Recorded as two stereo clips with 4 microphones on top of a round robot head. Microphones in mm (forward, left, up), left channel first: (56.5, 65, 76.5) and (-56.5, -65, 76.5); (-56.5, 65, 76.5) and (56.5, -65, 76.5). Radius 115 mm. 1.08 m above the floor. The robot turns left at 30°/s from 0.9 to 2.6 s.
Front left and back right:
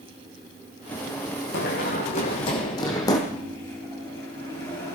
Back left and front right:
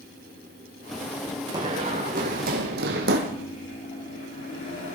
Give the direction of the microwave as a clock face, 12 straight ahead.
8 o'clock.